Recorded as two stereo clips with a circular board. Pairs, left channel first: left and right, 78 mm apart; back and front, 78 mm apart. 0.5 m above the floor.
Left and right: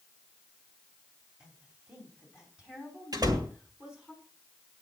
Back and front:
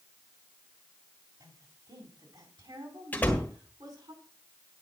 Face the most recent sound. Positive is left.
turn(degrees=-110)